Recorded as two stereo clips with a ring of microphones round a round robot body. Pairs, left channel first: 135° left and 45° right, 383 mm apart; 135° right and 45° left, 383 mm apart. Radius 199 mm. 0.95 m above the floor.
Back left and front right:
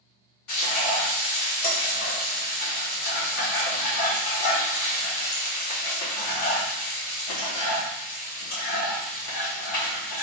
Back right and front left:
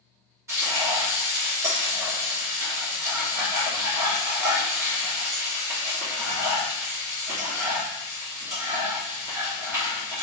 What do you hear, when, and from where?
0.5 s frying: 130° left, 2 m